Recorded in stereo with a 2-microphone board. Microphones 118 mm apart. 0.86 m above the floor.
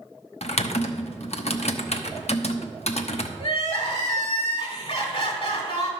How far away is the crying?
About 2.5 m.